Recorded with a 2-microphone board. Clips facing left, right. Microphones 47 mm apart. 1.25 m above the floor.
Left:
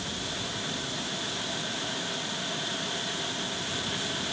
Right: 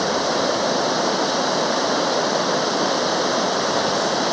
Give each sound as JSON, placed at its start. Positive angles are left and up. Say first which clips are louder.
{"t": 0.0, "sound": "running water", "louder": "right 15 dB", "side_deg": -85}